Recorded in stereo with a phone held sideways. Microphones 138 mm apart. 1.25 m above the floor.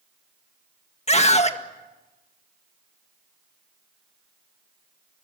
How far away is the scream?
About 1.7 m.